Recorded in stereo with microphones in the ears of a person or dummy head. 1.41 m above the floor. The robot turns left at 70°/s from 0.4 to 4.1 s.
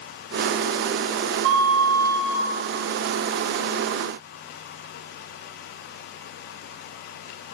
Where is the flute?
95° right, 0.6 m; by 2.5 s 165° right, 0.6 m.